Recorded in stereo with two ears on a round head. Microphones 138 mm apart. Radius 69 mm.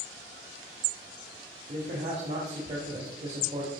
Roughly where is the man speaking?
Right.